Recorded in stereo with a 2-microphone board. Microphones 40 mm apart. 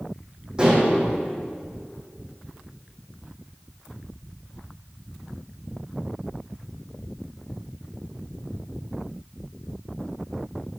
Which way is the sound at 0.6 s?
25° right (ahead or behind).